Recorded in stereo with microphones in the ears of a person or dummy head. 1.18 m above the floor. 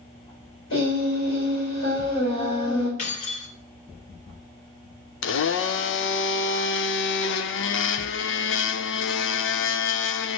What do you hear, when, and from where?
0.7 s singing: 55° left (ahead or behind), 5.5 m
3.0 s keys jangling: 35° left (ahead or behind), 2.5 m
5.2 s a blender: 55° left (ahead or behind), 0.5 m